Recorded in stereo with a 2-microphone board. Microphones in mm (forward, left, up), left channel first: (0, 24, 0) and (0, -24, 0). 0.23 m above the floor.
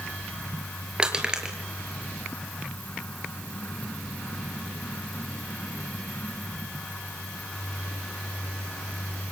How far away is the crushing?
About 4 m.